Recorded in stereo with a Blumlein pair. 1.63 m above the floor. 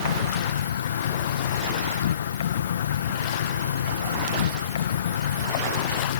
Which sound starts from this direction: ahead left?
An insect, at 0.0 s.